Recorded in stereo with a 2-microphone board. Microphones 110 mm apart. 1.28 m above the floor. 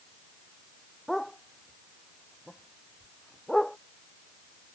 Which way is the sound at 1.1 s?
Centre (ahead or behind).